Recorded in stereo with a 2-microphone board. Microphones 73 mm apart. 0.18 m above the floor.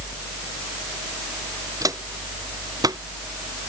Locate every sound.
1.8 s footsteps: 60° right (ahead or behind); by 3.0 s 70° right (ahead or behind)